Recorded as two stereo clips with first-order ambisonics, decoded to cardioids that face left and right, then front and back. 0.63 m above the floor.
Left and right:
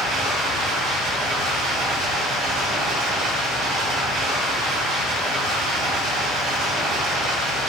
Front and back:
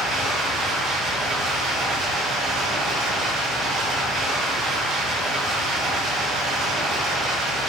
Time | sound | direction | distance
0.0 | running water | 130° right | 1.3 m